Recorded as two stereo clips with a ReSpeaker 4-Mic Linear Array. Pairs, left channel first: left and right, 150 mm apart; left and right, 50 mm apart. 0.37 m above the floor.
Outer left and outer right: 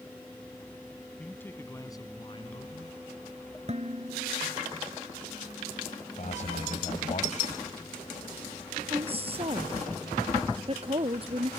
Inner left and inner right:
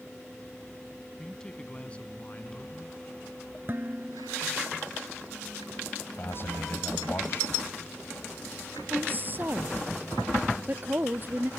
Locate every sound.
1.2 s a man speaking: 5° left (ahead or behind); by 3.0 s 40° left (ahead or behind)
3.7 s dishes clattering: 45° right (ahead or behind)
6.2 s a man speaking: 50° left (ahead or behind)
8.9 s a woman speaking: 35° right (ahead or behind)